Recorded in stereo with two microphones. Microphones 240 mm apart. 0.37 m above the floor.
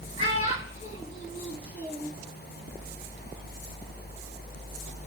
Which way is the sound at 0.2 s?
35° left (ahead or behind).